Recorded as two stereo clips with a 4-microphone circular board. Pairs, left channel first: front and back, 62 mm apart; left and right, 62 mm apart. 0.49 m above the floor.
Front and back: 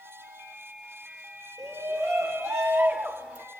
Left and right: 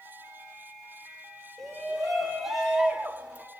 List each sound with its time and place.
1.6 s a shout: straight behind, 2 m; by 3.5 s 125° right, 1.3 m